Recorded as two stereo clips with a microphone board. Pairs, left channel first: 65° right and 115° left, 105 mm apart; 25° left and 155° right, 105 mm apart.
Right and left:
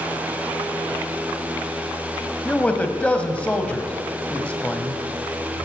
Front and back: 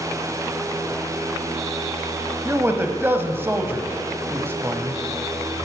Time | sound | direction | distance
2.5 | a man speaking | 130° right | 1.2 m